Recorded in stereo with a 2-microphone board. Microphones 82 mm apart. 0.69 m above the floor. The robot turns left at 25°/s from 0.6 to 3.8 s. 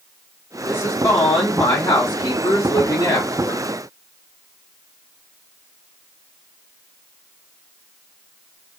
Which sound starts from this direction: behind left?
A woman speaking, at 0.6 s.